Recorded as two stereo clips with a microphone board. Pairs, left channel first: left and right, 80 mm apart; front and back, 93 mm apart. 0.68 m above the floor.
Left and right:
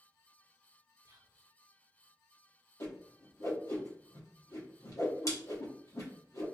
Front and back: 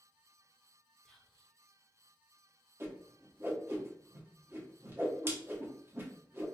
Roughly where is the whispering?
Right.